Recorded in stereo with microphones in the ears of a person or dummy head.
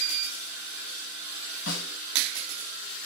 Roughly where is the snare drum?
Left.